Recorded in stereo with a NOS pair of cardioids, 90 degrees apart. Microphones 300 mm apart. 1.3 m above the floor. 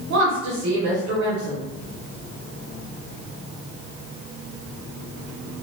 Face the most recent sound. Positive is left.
turn(degrees=-70)